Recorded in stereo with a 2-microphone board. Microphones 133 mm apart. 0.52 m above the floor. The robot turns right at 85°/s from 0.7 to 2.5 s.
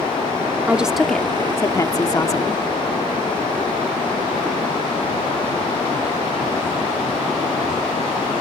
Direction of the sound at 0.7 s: 10° right (ahead or behind).